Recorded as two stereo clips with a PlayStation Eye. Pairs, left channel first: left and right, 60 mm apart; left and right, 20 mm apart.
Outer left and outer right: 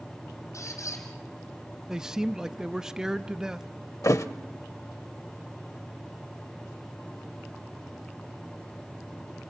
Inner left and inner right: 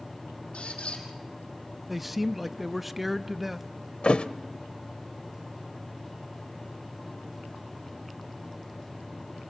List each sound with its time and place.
0.5 s a squeak: 60° left (ahead or behind), 5 m
1.9 s a man speaking: 10° right (ahead or behind), 0.7 m
4.0 s a thud: 60° left (ahead or behind), 0.9 m